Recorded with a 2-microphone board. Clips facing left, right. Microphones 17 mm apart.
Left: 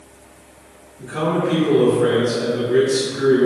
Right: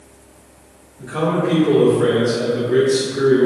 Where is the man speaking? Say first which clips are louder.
Right 1 dB; 55° right (ahead or behind), 1.6 m; by 3.5 s 20° right (ahead or behind), 0.6 m.